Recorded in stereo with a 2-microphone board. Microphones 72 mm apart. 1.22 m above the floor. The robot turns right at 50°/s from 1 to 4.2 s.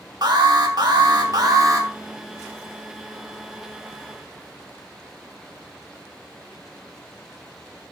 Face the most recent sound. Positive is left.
turn(degrees=70)